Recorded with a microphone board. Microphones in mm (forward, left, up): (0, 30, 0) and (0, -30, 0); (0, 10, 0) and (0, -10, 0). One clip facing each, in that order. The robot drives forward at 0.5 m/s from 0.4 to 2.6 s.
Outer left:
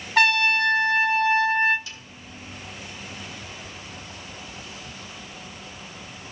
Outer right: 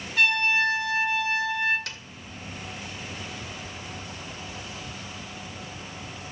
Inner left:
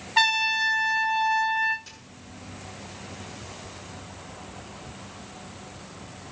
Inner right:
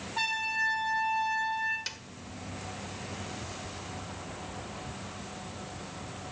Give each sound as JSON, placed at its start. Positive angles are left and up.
{"t": 0.2, "sound": "a trumpet", "side_deg": 60, "distance_m": 1.0}
{"t": 1.9, "sound": "a snare drum", "side_deg": -70, "distance_m": 1.2}